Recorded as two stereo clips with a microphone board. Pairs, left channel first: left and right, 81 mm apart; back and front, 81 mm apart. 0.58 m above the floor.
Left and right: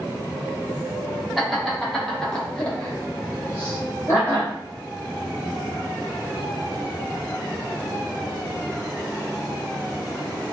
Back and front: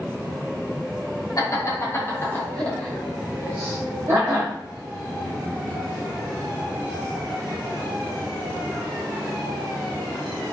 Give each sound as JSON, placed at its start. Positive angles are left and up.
{"t": 1.4, "sound": "laughter", "azimuth_deg": 180, "distance_m": 1.6}